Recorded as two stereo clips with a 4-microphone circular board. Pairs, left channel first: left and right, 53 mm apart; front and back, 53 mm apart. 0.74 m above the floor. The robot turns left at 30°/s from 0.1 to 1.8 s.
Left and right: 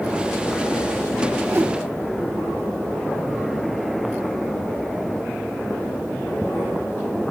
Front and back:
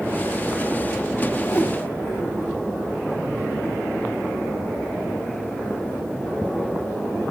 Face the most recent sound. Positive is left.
turn(degrees=-50)